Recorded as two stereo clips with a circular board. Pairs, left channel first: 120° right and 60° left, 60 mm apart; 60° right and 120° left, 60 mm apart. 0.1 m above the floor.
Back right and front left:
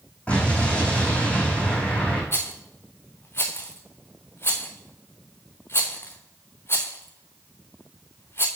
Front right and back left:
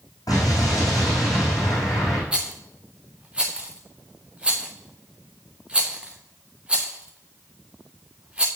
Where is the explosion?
50° right, 6 m.